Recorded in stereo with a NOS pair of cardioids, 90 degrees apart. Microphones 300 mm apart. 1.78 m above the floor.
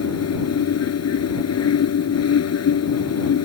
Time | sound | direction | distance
0.0 | a fan | 55° left | ?